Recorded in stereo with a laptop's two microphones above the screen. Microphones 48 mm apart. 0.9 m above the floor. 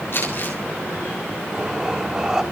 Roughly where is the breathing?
Centre.